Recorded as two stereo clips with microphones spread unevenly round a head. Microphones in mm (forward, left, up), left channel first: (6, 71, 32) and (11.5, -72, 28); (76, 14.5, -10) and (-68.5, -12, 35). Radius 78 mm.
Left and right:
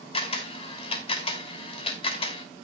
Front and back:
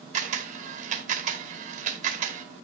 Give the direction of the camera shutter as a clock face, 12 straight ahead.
7 o'clock.